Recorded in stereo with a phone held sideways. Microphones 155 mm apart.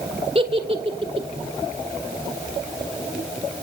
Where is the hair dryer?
I don't hear a hair dryer.